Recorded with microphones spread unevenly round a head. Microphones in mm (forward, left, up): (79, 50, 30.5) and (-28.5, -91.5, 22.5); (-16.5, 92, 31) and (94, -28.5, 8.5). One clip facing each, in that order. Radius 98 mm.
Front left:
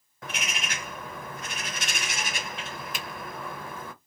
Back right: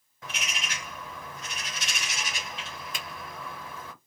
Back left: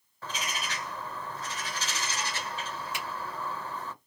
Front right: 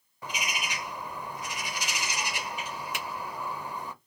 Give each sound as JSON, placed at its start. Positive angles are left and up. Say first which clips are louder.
{"t": 0.2, "sound": "a bird", "louder": "front left 3 dB, front right 1 dB", "azimuth_deg": 20, "distance_m": 0.5}
{"t": 2.9, "sound": "a finger snap", "louder": "front left 3 dB, front right 1 dB", "azimuth_deg": -35, "distance_m": 1.6}